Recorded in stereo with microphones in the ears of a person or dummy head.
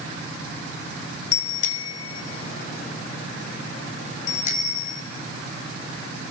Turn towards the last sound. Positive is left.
turn(degrees=45)  # may be behind; listen again after turning